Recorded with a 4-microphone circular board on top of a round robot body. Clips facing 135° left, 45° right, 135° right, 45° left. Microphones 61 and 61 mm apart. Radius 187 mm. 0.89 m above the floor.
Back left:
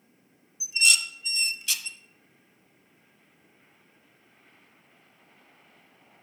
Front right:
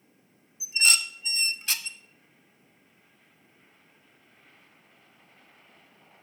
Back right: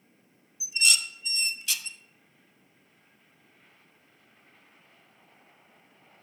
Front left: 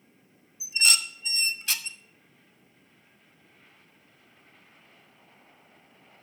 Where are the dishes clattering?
Straight ahead, 0.8 m.